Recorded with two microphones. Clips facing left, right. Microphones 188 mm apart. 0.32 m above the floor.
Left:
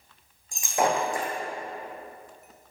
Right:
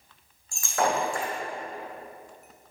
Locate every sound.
0.5 s breaking glass: 20° left (ahead or behind), 4.5 m